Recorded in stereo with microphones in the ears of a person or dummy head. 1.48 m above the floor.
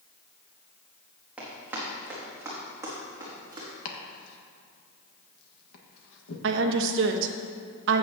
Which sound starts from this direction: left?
Chopping, at 3.9 s.